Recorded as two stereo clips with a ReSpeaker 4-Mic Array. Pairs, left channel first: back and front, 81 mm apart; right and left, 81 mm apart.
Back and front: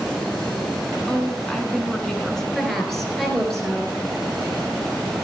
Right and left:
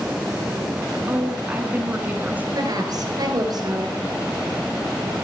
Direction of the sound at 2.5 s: 95° left.